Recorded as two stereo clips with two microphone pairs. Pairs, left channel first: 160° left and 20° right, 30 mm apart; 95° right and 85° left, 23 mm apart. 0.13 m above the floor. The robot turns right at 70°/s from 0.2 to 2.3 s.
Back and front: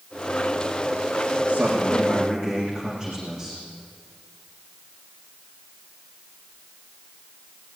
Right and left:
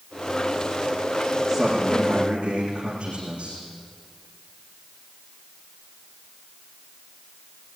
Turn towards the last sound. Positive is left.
turn(degrees=40)